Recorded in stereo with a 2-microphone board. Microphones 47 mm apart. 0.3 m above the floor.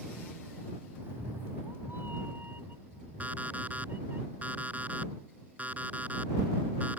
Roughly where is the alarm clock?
Right.